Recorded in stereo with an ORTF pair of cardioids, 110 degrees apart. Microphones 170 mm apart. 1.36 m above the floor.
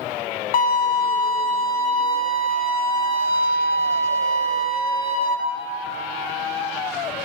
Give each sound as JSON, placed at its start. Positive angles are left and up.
{"t": 0.5, "sound": "a violin", "azimuth_deg": 65, "distance_m": 0.6}